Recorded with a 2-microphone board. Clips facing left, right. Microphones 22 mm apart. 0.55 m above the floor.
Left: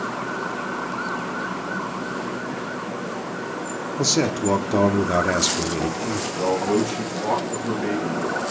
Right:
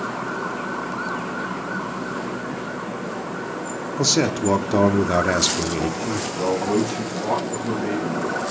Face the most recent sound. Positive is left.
turn(degrees=15)  # may be behind; listen again after turning